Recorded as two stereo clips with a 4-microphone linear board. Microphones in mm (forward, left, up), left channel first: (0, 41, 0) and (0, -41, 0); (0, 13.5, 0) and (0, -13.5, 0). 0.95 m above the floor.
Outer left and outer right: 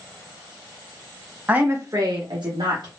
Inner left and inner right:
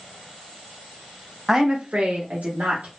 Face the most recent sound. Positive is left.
turn(degrees=-70)  # may be behind; listen again after turning